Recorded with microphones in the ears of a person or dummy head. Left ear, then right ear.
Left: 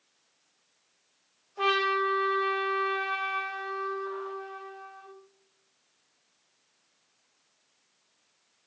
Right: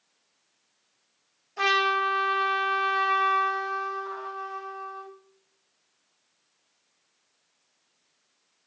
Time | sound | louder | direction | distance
1.6 | a trumpet | right 3 dB | 55° right (ahead or behind) | 0.7 m